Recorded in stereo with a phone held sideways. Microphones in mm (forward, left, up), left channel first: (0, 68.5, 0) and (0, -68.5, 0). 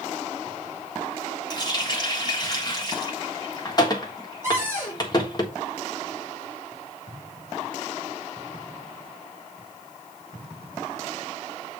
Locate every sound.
1.5 s a running tap: 30° left (ahead or behind), 1.5 m
4.4 s a cupboard door: 20° right (ahead or behind), 4 m